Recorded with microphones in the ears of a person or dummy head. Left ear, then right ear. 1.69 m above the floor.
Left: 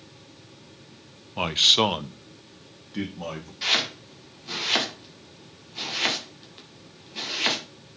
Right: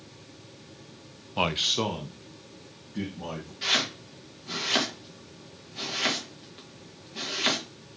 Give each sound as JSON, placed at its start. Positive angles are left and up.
{"t": 1.4, "sound": "a man speaking", "side_deg": -15, "distance_m": 0.6}
{"t": 3.6, "sound": "chopping", "side_deg": 15, "distance_m": 2.0}